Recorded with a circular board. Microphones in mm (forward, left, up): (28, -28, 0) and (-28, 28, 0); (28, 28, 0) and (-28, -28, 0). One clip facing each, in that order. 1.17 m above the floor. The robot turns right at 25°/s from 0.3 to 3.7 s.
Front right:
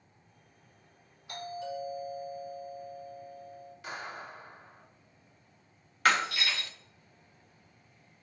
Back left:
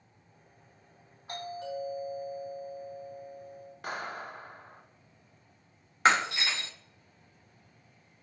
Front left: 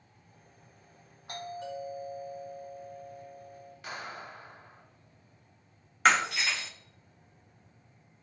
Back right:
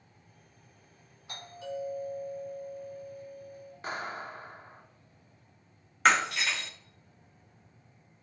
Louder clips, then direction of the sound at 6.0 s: Back left 2 dB, even; 135° left.